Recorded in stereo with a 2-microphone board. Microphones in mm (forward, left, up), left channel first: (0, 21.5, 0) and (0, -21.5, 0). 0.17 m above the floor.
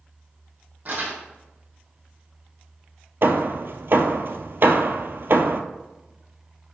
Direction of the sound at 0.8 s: 45° right (ahead or behind).